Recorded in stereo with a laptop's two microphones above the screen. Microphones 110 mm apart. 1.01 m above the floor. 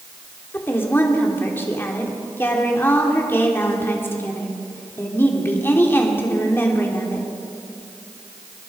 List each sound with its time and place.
0.5 s a woman speaking: 20° left (ahead or behind), 2.5 m